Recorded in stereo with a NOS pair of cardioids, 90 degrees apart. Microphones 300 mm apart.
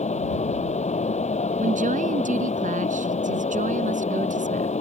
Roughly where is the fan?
Ahead.